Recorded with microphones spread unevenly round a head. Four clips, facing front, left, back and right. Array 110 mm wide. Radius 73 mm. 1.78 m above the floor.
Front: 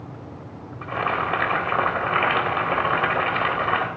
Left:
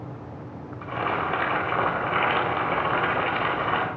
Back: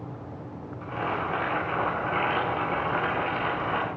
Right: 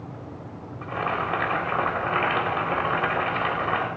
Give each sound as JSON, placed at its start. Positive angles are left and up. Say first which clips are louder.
{"t": 0.8, "sound": "boiling", "louder": "even, front 5 dB", "azimuth_deg": 10, "distance_m": 4.0}